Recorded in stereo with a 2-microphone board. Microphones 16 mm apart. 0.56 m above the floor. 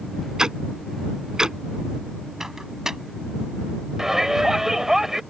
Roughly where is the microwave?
Right.